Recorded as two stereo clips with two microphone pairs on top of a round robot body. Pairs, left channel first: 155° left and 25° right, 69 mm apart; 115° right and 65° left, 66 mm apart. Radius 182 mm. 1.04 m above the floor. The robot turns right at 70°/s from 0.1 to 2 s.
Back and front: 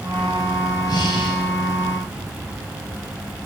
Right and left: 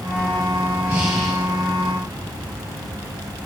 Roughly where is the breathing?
Behind left.